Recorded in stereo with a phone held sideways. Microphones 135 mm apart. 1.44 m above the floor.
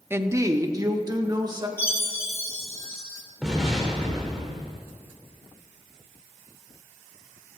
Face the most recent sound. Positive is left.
turn(degrees=-5)  # may be behind; listen again after turning